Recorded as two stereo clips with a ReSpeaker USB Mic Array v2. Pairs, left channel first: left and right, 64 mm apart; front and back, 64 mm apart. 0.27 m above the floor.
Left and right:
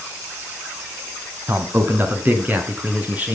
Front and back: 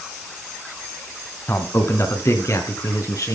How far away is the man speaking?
About 2 m.